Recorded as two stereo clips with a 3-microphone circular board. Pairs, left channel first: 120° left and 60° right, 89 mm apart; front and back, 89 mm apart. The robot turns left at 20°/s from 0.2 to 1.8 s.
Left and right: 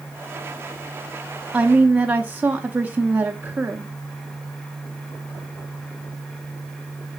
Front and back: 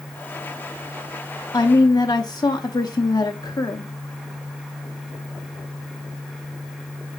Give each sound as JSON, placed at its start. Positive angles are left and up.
{"t": 1.5, "sound": "a woman speaking", "azimuth_deg": 10, "distance_m": 0.8}